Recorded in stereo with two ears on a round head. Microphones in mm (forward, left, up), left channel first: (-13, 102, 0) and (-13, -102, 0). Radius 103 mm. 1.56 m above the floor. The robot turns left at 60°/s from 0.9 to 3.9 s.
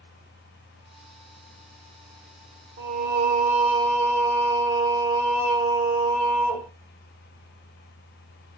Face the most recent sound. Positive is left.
turn(degrees=-165)